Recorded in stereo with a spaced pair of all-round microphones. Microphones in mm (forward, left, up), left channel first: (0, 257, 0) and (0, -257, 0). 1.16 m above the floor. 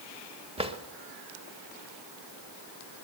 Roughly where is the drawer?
Centre.